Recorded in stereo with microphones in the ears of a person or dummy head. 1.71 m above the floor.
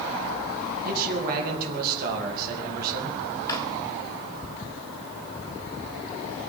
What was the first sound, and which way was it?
A man speaking, 50° right (ahead or behind).